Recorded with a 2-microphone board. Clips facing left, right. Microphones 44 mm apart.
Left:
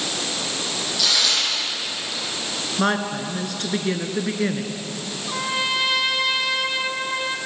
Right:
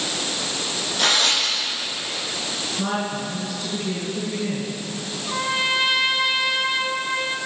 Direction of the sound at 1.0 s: 35° right (ahead or behind).